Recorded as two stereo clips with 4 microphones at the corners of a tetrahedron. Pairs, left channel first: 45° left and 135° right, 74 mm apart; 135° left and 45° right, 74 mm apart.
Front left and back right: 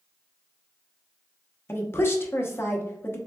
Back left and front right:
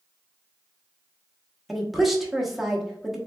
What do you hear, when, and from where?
1.7 s a woman speaking: 45° left, 0.8 m